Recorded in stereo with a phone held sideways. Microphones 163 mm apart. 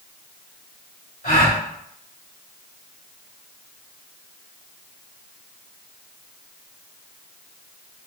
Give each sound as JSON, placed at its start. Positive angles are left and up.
{"t": 1.2, "sound": "a gasp", "side_deg": 60, "distance_m": 1.5}